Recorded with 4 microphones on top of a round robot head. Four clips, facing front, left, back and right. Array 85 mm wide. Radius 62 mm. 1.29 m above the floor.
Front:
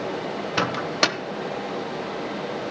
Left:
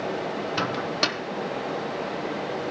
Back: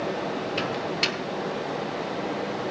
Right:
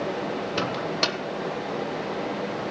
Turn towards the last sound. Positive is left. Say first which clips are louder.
# left 1 dB, front 4 dB
turn(degrees=0)